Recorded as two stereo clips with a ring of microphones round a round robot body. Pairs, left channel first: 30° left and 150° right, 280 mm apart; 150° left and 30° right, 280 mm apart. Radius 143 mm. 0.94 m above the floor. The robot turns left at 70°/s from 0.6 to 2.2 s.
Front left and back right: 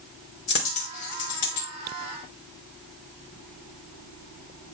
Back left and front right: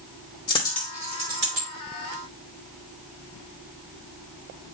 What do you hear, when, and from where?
0.5 s a dropped coin: 75° left, 2.5 m; by 1.7 s straight ahead, 2.5 m